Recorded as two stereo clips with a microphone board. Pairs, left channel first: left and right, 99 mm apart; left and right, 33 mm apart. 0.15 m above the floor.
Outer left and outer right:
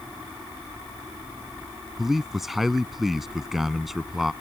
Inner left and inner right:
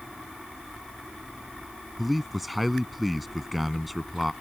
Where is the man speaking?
Centre (ahead or behind).